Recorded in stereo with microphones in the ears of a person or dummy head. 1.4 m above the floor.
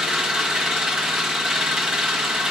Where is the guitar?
I don't hear a guitar.